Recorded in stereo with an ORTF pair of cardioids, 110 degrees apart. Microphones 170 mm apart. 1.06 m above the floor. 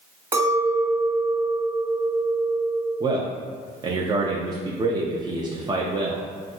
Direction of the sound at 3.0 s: 25° right.